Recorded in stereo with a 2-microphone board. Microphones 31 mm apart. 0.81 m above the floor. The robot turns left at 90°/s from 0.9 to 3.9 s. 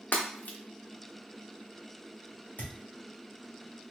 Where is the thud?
70° left (ahead or behind), 1.5 m; by 2.8 s 85° left, 1.5 m.